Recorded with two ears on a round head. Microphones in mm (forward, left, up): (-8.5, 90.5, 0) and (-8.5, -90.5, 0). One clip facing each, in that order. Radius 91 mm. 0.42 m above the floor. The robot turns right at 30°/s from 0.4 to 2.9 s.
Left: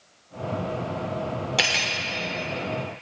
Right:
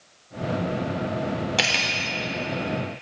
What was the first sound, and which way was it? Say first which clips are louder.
Cutlery clinking: right 1 dB; centre (ahead or behind).